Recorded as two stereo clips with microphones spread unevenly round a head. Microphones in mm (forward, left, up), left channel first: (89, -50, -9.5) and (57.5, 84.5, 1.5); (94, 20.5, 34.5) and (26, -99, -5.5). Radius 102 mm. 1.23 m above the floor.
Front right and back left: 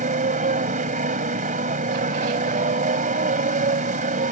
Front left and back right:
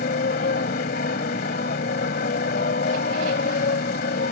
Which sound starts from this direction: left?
A motorcycle, at 0.0 s.